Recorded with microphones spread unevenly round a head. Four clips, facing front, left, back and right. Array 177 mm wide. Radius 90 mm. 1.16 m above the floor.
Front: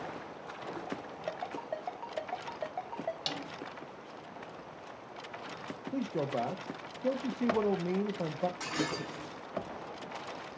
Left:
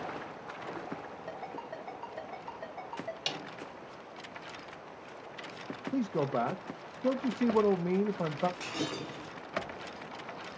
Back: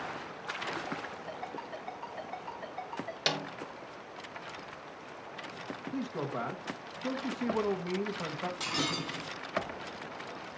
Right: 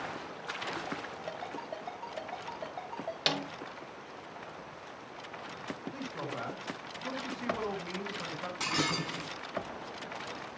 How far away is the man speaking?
About 1.1 m.